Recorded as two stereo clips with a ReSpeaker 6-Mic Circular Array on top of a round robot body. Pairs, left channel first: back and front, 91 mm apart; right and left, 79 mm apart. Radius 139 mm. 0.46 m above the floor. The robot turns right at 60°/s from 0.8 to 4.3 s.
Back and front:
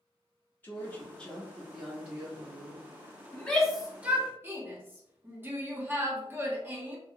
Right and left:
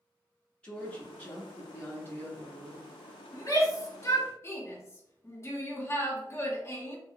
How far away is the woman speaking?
About 1.0 m.